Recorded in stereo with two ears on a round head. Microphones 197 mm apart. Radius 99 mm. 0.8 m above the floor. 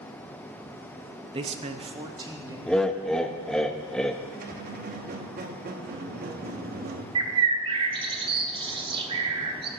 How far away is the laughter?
About 0.5 m.